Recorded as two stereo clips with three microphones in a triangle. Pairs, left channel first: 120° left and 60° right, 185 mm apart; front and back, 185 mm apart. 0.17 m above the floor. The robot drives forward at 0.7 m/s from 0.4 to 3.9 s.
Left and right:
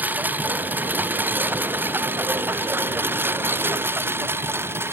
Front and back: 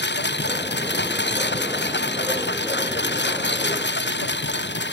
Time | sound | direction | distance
0.0 | a lawn mower | 20° left | ?